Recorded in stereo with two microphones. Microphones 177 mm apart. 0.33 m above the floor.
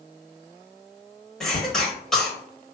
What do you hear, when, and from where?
1.4 s a cough: 5° left (ahead or behind), 1.3 m